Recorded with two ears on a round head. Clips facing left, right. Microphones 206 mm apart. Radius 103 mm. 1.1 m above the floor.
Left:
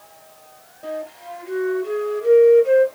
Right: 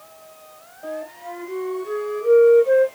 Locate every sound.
0.8 s a flute: 35° left (ahead or behind), 2 m